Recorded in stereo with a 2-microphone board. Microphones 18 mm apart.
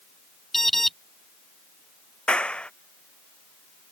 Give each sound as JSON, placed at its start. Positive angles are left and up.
{"t": 0.5, "sound": "an alarm", "side_deg": 15}
{"t": 2.3, "sound": "a clap", "side_deg": 85}